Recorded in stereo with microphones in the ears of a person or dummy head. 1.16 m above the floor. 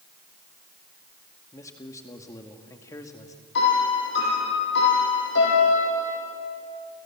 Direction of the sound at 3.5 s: 65° left (ahead or behind).